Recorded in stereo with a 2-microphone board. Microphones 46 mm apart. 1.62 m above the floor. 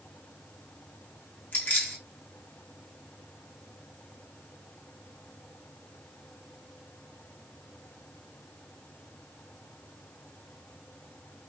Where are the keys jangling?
40° left (ahead or behind), 1.3 m.